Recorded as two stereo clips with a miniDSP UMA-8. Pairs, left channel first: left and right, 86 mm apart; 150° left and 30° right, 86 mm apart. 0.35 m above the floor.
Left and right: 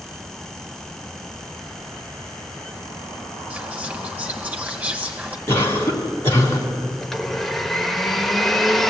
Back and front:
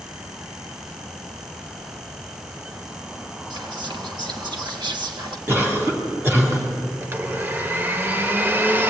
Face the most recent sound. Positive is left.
turn(degrees=5)